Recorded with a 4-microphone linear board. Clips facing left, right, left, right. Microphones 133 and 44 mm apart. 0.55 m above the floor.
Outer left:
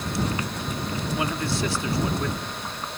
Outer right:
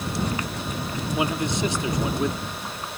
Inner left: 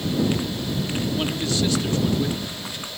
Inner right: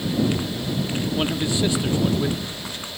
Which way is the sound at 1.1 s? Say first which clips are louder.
Outer right 3 dB, inner right 3 dB; 20° right (ahead or behind).